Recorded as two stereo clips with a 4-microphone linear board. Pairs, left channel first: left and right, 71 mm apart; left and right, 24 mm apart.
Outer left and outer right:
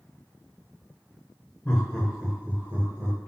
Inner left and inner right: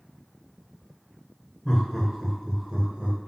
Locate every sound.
1.6 s laughter: 20° left (ahead or behind), 0.9 m; by 3.2 s 45° right (ahead or behind), 1.2 m